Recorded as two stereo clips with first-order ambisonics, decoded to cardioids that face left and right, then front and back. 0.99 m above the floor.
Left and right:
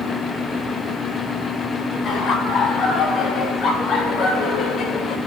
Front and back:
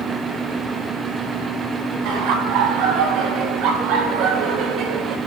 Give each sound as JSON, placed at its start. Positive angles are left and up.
{"t": 2.0, "sound": "laughter", "azimuth_deg": 145, "distance_m": 8.0}